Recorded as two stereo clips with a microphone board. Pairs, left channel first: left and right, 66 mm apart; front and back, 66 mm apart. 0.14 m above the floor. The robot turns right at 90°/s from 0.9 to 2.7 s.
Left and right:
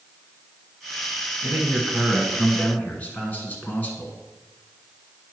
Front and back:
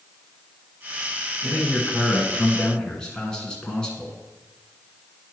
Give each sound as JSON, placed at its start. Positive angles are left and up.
{"t": 1.4, "sound": "a man speaking", "azimuth_deg": -55, "distance_m": 1.7}